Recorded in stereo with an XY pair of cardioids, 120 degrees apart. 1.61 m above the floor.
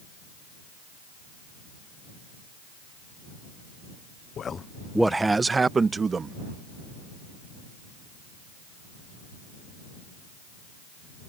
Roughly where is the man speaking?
Ahead left.